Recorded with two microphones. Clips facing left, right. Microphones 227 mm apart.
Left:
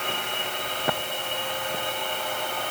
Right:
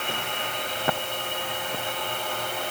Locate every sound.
Only background noise.